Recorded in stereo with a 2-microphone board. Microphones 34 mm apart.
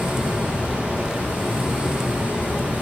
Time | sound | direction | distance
0.0 | running water | 50° right (ahead or behind) | 8.5 m